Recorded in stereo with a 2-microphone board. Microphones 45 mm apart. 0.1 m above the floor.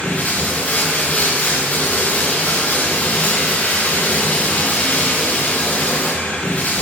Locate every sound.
0.0 s running water: 35° left (ahead or behind), 2.5 m